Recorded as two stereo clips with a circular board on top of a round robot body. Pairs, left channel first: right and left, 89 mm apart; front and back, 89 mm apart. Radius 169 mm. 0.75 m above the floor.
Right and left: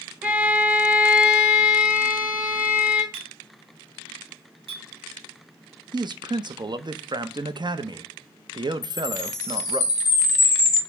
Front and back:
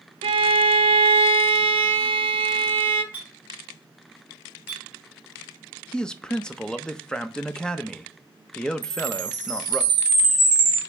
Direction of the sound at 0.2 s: 165° left.